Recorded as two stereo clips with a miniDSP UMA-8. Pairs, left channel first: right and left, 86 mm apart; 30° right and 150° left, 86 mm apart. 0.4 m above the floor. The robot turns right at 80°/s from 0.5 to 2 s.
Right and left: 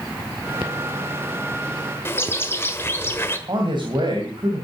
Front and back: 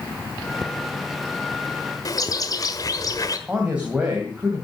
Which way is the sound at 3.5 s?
75° left.